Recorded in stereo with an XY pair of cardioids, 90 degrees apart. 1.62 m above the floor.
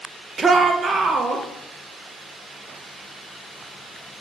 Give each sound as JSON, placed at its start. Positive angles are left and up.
{"t": 0.4, "sound": "a shout", "azimuth_deg": -40, "distance_m": 0.5}